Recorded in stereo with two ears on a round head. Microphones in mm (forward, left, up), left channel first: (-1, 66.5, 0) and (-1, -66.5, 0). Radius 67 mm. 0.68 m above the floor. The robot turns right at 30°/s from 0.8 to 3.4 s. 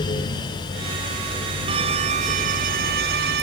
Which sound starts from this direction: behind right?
A violin, at 1.7 s.